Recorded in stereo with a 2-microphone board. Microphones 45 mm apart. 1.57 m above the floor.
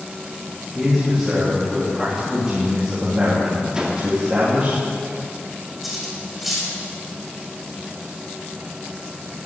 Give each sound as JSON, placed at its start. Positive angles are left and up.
{"t": 0.8, "sound": "a man speaking", "side_deg": -10, "distance_m": 4.0}
{"t": 3.7, "sound": "a whoosh", "side_deg": -15, "distance_m": 2.5}
{"t": 5.8, "sound": "cutlery clinking", "side_deg": -5, "distance_m": 4.5}